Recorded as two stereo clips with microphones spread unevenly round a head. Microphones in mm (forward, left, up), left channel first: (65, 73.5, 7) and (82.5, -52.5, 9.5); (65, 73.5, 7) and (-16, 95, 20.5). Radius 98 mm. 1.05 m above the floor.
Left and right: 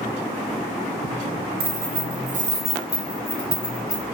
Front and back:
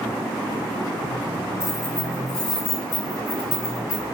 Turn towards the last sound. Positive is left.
turn(degrees=-20)